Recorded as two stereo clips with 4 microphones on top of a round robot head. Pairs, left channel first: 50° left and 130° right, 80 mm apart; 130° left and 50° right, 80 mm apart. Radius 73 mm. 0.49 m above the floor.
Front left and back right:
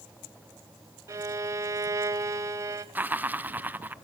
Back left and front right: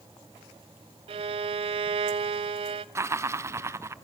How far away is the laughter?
About 1.0 m.